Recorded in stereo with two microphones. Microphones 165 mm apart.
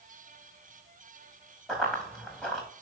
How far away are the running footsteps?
About 5 m.